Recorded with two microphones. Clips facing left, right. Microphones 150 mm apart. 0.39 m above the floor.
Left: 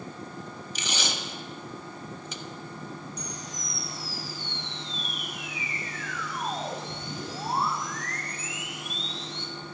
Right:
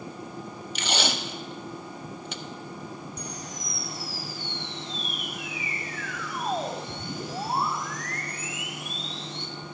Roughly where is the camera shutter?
Right.